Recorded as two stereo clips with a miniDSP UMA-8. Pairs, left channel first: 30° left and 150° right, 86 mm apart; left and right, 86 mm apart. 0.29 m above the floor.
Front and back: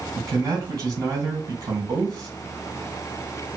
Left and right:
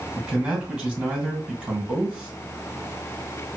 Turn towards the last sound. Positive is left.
turn(degrees=-170)